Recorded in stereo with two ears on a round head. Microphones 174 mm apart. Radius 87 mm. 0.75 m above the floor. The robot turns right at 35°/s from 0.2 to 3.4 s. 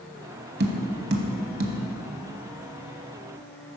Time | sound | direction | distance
0.6 | tapping | 55° right (ahead or behind) | 0.9 m